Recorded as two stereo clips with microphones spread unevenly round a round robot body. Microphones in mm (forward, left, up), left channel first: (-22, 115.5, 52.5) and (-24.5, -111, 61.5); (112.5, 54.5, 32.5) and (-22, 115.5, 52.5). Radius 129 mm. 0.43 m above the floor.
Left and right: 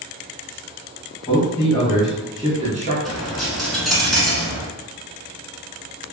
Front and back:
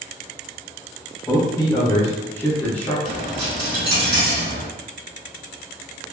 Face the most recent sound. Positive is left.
turn(degrees=180)